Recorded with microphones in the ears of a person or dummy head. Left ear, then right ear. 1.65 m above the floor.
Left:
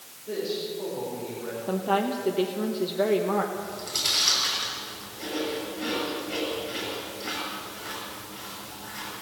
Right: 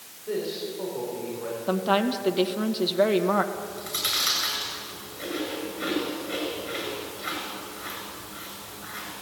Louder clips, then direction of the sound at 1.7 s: Right 2 dB; 30° right (ahead or behind).